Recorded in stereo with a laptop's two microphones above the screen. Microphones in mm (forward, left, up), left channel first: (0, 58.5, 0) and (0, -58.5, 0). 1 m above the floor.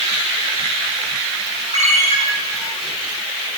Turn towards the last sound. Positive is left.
turn(degrees=-85)